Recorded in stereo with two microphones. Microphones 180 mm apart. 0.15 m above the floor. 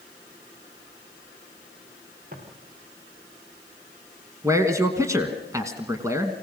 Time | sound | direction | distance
2.3 | footsteps | 50° right (ahead or behind) | 4.5 m
4.4 | a man speaking | 20° right (ahead or behind) | 1.2 m